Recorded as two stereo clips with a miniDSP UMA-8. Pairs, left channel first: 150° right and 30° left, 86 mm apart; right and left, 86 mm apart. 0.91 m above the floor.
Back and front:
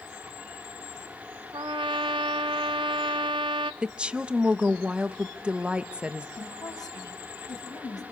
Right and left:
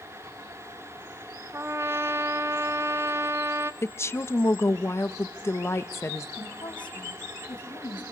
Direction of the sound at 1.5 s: 35° left.